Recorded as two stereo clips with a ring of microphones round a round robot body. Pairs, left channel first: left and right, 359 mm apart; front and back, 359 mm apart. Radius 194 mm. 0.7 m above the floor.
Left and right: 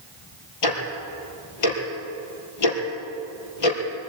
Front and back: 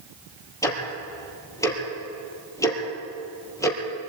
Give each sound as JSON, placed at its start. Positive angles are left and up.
{"t": 0.6, "sound": "ticking", "azimuth_deg": 80, "distance_m": 4.5}